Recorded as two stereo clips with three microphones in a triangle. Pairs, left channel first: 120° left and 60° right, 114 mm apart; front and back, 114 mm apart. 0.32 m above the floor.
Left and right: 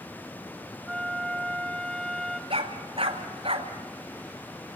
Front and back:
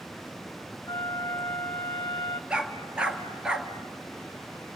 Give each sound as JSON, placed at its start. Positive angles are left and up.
{"t": 0.9, "sound": "a flute", "azimuth_deg": 35, "distance_m": 1.8}
{"t": 2.5, "sound": "a dog barking", "azimuth_deg": -100, "distance_m": 2.0}